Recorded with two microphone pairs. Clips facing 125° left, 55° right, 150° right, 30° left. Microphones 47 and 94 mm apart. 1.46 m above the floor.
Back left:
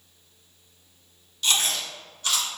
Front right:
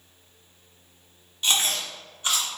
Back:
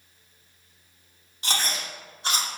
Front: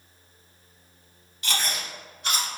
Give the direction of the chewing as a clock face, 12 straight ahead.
4 o'clock.